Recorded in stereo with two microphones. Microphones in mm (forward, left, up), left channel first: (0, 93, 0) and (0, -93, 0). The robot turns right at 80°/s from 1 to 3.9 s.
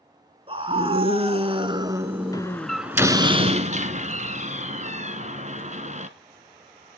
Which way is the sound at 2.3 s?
20° left (ahead or behind).